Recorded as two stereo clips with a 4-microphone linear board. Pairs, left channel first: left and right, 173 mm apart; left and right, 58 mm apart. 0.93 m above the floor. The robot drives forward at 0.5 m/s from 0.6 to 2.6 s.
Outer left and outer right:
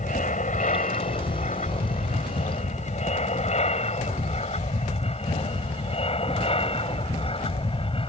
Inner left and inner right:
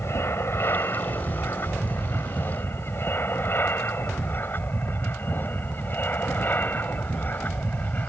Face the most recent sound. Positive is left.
turn(degrees=35)  # may be behind; listen again after turning